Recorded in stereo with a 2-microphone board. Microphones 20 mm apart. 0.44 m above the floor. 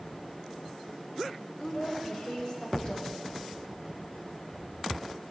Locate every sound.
1.6 s a woman speaking: 35° left (ahead or behind), 2 m